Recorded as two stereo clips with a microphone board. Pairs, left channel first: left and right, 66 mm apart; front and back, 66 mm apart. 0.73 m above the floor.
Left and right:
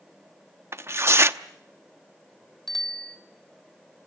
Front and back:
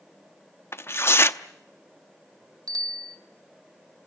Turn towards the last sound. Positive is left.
turn(degrees=175)